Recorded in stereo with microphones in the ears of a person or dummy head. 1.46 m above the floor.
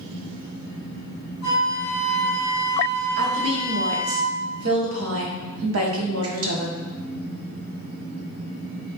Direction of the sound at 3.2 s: 85° right.